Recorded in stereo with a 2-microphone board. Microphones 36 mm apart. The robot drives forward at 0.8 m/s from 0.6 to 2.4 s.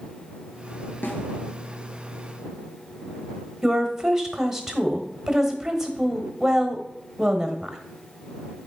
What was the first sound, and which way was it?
A snare drum, 80° left.